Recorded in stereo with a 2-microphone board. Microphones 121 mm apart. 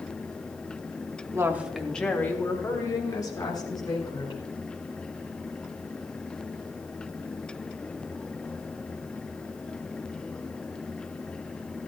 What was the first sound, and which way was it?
A woman speaking, 25° right (ahead or behind).